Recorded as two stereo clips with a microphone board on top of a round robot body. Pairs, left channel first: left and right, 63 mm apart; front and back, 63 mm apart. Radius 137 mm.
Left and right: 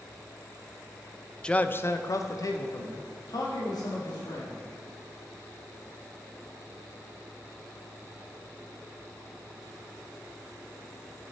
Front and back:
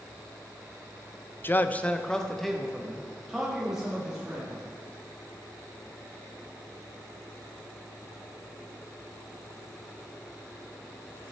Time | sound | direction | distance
1.4 | a man speaking | 20° left | 0.6 m